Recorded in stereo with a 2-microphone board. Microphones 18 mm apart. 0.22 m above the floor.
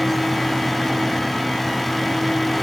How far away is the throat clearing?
I don't hear throat clearing.